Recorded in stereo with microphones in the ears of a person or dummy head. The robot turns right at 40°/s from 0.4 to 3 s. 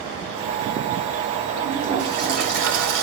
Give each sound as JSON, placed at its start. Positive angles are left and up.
{"t": 1.6, "sound": "a toilet flushing", "azimuth_deg": -160, "distance_m": 2.0}